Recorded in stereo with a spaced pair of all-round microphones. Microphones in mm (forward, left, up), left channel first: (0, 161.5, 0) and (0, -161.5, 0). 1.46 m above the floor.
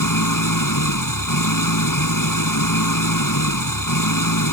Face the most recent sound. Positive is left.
turn(degrees=80)